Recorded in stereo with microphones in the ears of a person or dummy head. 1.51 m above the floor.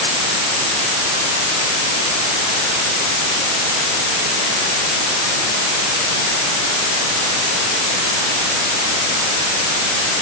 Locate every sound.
Only background noise.